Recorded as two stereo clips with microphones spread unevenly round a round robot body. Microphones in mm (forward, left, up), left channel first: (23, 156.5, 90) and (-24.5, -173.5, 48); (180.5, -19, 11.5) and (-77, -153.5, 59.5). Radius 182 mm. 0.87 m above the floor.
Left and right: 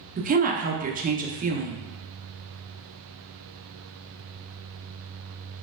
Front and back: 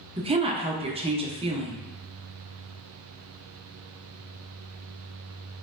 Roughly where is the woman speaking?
Right.